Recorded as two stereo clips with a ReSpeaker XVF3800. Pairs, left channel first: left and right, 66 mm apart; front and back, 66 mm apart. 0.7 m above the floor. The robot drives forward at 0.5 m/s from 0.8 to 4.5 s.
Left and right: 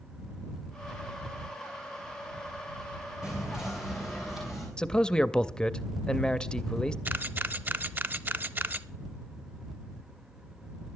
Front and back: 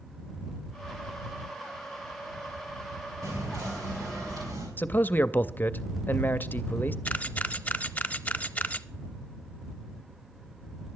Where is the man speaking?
25° left, 0.5 m.